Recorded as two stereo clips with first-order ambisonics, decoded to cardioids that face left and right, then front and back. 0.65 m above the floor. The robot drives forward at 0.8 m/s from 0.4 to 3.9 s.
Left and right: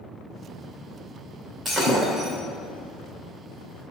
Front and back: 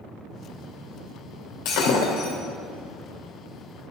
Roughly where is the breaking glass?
Ahead.